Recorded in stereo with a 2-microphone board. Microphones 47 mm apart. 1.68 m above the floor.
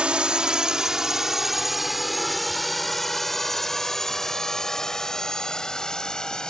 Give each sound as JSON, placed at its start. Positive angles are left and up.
{"t": 0.0, "sound": "a drone", "side_deg": -20}